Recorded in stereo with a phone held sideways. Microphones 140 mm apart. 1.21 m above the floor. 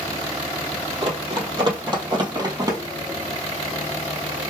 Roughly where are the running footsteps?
Right.